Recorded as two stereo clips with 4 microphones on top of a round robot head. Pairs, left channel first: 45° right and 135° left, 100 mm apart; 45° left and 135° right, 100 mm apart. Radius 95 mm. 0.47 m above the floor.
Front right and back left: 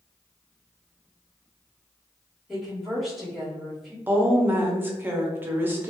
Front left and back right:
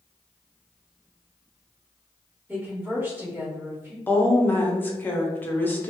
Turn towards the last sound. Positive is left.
turn(degrees=95)